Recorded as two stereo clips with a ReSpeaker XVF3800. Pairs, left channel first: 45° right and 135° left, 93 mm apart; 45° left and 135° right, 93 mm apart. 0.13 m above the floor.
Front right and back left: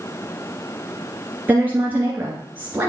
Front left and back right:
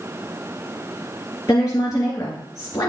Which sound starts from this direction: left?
A woman speaking, at 1.5 s.